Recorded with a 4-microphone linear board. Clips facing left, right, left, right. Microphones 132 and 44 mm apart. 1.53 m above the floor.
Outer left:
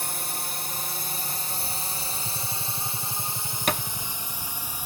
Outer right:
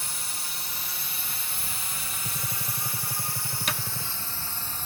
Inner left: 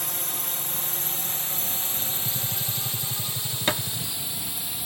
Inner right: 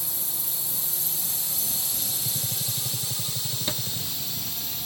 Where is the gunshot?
20° right (ahead or behind).